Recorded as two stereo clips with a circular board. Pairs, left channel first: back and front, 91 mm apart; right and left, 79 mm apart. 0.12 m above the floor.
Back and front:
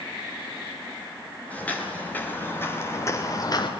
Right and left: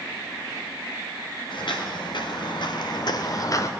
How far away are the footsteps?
About 3 m.